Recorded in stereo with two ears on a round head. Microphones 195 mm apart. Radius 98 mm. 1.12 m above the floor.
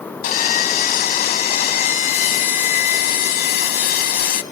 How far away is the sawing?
About 1.2 m.